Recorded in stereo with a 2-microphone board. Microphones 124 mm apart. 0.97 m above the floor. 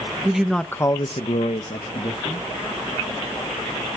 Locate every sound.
0.2 s a man speaking: 10° right (ahead or behind), 1.0 m; by 2.4 s 50° left (ahead or behind), 1.6 m